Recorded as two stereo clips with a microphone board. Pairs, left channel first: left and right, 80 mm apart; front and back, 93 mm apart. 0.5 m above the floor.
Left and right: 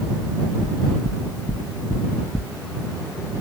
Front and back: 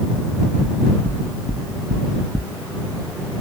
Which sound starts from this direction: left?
Knocking, at 0.6 s.